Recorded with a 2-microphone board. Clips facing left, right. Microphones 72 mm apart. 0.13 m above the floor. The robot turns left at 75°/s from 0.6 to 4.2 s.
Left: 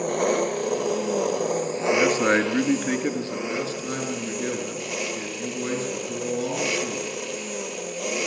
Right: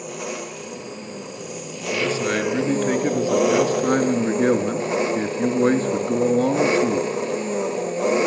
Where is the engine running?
125° left, 0.7 m; by 8.3 s 145° right, 0.7 m.